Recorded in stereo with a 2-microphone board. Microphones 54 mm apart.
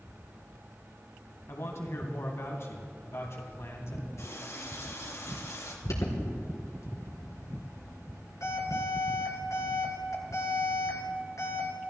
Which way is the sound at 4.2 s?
65° left (ahead or behind).